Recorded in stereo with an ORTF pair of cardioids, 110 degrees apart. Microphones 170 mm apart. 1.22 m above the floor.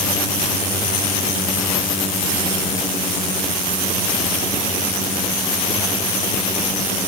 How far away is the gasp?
I don't hear a gasp.